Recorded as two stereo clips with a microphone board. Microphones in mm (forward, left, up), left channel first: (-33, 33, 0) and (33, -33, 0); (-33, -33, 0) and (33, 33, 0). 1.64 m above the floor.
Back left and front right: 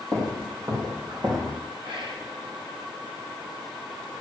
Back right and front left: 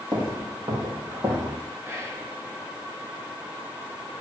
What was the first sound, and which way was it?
Footsteps, 10° left.